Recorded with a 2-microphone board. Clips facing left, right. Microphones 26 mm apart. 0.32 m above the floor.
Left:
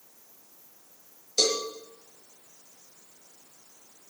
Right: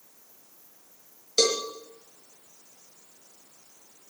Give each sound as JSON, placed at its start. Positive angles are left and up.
{"t": 1.4, "sound": "a cowbell", "side_deg": -25, "distance_m": 4.0}